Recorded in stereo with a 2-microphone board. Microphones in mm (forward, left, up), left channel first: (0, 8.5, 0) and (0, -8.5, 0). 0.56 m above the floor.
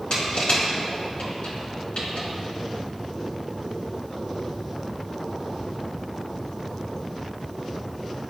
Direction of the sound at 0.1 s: 80° left.